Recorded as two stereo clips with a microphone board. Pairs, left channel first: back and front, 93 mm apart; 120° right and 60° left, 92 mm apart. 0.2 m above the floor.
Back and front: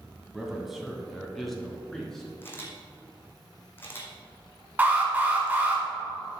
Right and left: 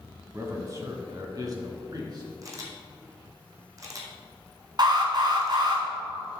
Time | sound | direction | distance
0.3 | a man speaking | 80° left | 1.3 m
2.4 | a camera shutter | 115° left | 1.7 m
4.8 | an alarm | 70° left | 1.8 m